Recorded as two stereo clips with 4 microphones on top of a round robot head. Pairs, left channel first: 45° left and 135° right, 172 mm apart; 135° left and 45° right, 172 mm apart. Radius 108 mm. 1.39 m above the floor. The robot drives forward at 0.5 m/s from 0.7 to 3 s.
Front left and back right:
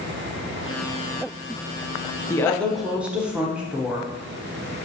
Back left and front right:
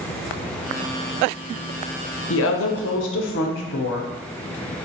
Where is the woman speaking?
120° left, 0.6 m; by 4.1 s 145° left, 0.8 m.